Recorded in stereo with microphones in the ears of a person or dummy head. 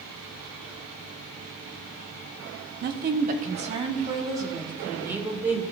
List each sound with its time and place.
2.8 s a woman speaking: 55° right (ahead or behind), 1.2 m; by 5.6 s 10° right (ahead or behind), 2 m